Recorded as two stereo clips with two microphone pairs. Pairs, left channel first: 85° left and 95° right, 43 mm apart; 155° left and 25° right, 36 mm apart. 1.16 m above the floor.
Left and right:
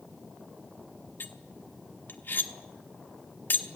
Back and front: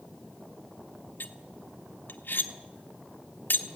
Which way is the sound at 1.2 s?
125° left.